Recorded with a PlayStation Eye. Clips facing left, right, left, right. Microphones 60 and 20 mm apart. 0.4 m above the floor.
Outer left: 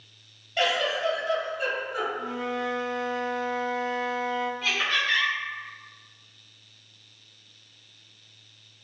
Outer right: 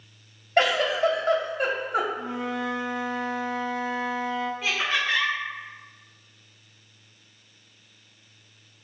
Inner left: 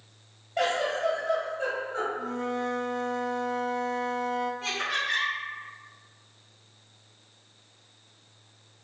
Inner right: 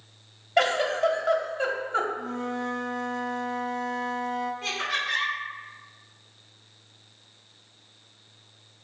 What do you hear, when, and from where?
0.6 s a giggle: 50° right (ahead or behind), 0.6 m
2.2 s a flute: centre (ahead or behind), 0.5 m
4.6 s laughter: 5° right (ahead or behind), 1.7 m